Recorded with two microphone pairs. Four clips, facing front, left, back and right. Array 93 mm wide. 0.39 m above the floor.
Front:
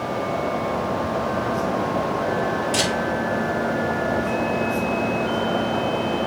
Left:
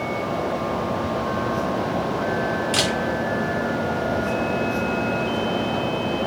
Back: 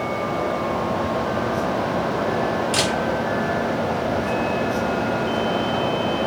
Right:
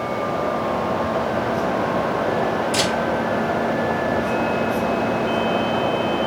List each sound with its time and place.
2.7 s a camera shutter: 120° left, 1.8 m